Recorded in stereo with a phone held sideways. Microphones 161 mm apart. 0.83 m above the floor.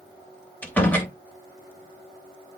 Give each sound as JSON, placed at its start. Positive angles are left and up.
{"t": 0.6, "sound": "a door slam", "side_deg": 10, "distance_m": 2.5}